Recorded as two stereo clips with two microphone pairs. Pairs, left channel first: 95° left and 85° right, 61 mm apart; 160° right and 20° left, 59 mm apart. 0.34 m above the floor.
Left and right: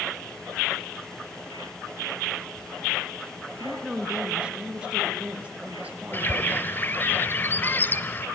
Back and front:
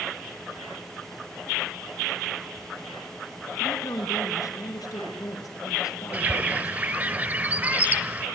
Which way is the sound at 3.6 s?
165° right.